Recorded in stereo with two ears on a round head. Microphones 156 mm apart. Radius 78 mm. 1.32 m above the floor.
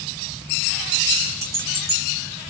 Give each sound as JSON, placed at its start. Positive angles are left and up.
{"t": 1.4, "sound": "keys jangling", "side_deg": -15, "distance_m": 2.0}